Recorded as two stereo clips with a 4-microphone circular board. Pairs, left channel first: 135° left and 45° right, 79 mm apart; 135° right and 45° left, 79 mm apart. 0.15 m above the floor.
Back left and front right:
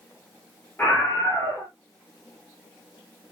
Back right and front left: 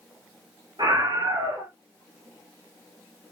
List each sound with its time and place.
0.8 s a scream: 65° left, 5.5 m